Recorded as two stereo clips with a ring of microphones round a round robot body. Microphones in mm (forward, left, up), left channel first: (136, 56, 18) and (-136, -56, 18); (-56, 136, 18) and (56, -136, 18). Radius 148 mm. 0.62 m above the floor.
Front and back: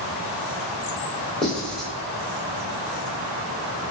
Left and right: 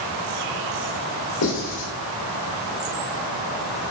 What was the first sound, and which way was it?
Writing, 110° left.